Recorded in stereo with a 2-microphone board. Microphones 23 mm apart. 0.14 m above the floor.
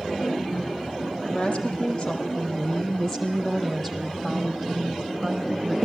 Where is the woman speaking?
45° left (ahead or behind), 4 m; by 5.8 s 10° right (ahead or behind), 5 m.